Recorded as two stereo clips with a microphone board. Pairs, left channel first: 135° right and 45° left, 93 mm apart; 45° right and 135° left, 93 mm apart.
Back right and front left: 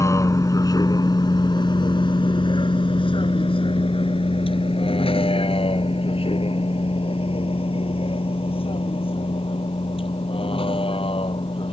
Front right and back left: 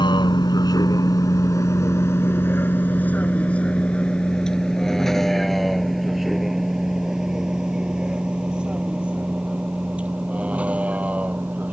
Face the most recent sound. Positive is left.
turn(degrees=-150)